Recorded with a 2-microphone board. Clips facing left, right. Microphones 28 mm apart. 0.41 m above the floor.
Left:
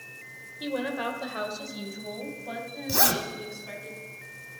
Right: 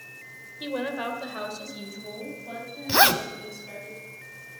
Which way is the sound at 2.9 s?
45° right (ahead or behind).